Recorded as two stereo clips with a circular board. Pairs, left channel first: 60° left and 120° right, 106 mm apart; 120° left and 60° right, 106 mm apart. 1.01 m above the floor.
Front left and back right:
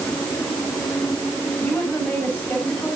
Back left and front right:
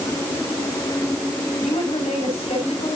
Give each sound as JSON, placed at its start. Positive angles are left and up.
{"t": 1.6, "sound": "a woman speaking", "azimuth_deg": 140, "distance_m": 8.0}